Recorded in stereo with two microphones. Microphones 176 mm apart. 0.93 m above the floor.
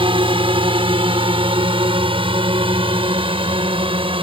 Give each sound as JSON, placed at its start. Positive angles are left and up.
{"t": 0.0, "sound": "a drone", "side_deg": -30}